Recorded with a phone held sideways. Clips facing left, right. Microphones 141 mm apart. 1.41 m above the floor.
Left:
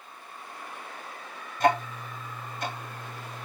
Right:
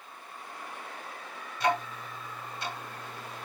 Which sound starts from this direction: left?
Ticking, at 1.6 s.